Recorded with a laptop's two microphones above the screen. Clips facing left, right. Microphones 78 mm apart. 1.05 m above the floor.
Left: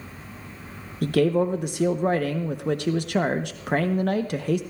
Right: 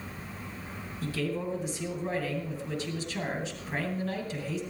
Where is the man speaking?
70° left (ahead or behind), 0.8 m.